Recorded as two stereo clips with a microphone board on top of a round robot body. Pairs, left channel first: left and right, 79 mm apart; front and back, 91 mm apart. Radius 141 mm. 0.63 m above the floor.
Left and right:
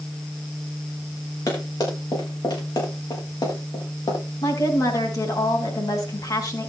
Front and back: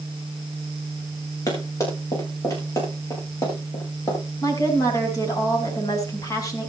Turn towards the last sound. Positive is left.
turn(degrees=50)